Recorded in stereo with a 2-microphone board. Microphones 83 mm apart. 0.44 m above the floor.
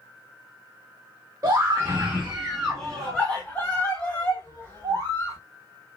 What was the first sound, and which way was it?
A scream, 40° right (ahead or behind).